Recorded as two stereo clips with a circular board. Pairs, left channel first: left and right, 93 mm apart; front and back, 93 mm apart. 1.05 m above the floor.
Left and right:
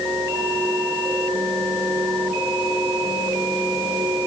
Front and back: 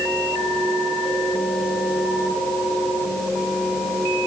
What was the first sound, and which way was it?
Only background noise.